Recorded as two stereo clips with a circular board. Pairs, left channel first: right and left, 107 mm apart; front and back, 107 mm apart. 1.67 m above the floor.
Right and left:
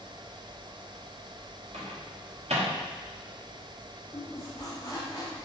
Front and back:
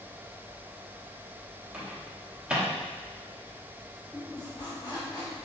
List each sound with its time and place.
1.7 s a microwave: 100° left, 1.0 m
4.1 s a squeak: 40° right, 1.1 m